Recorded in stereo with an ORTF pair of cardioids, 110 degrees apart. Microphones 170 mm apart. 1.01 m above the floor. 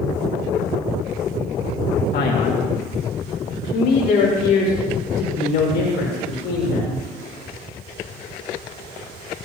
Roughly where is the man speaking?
Ahead left.